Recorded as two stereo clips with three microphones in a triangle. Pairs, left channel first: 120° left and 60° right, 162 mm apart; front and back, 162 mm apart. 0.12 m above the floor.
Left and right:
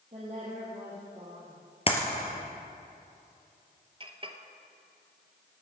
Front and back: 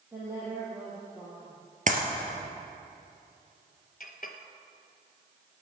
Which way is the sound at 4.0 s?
10° right.